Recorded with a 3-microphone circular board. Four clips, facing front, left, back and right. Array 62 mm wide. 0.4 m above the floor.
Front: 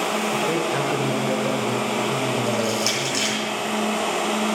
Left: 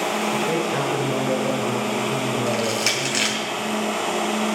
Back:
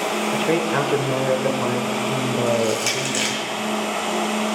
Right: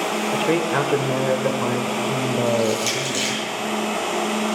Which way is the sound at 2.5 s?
105° left.